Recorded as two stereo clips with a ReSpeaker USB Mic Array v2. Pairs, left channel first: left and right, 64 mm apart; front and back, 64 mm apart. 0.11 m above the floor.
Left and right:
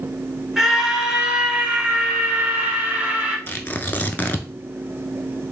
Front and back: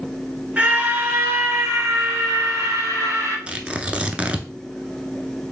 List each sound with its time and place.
0.6 s a scream: 165° right, 1.1 m; by 3.4 s 155° right, 2.5 m
3.5 s tearing paper: 125° left, 0.6 m